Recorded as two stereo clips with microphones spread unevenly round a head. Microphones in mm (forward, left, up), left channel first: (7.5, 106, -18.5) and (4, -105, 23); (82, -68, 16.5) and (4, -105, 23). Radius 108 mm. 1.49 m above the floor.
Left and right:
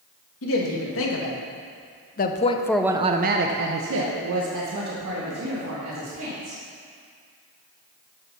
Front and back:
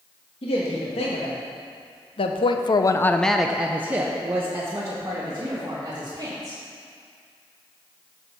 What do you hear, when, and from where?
0.4 s a woman speaking: 60° left, 2.0 m; by 6.6 s 100° right, 3 m